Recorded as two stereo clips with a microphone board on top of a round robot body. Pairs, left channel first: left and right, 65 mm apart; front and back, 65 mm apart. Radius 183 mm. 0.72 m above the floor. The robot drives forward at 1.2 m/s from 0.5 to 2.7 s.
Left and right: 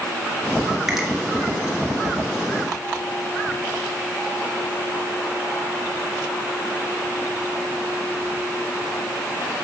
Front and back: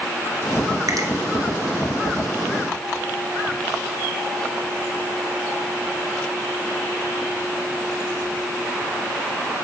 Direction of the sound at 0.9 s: 170° right.